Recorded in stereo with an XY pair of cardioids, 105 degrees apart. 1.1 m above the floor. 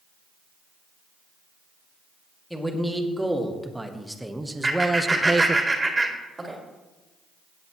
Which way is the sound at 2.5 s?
Straight ahead.